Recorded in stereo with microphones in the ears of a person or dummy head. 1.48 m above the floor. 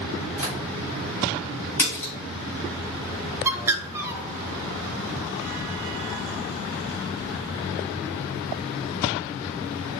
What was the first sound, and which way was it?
Tapping, 10° right (ahead or behind).